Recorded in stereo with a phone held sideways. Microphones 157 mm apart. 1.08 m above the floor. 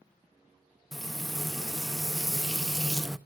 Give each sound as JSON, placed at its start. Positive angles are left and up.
{"t": 0.9, "sound": "frying", "side_deg": 0, "distance_m": 0.5}